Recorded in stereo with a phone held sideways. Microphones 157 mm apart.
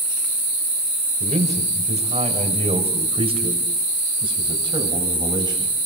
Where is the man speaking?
50° right (ahead or behind), 5.5 m; by 5.7 s 25° right (ahead or behind), 7 m.